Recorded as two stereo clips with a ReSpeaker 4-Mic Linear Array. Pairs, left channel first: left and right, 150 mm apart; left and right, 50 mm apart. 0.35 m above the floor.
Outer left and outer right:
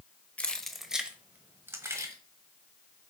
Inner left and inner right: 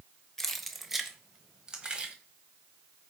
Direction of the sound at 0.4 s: 10° left (ahead or behind).